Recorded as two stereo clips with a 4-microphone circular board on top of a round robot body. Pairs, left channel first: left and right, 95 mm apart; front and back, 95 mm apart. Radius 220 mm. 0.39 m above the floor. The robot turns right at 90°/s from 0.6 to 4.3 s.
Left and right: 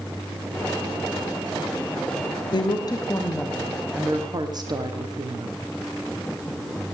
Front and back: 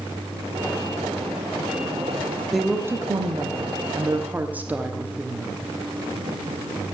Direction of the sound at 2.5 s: 90° left.